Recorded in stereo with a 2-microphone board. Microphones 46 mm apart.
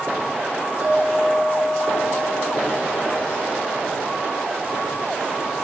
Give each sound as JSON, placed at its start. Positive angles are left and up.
{"t": 0.8, "sound": "a clink", "side_deg": -50, "distance_m": 9.0}